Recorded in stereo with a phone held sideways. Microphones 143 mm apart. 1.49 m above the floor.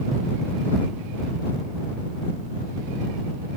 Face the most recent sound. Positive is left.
No sound to turn to.